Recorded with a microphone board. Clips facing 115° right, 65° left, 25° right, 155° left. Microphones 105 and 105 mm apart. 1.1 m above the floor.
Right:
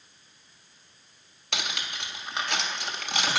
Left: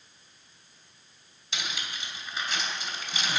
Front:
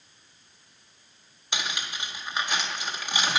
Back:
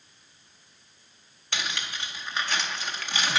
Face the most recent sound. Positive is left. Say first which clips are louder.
# right 3 dB, even
turn(degrees=-95)